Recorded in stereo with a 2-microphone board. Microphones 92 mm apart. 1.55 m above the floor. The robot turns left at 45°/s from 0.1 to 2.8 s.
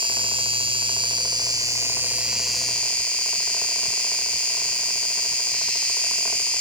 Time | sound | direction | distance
0.0 | an insect | 70° right | 1.4 m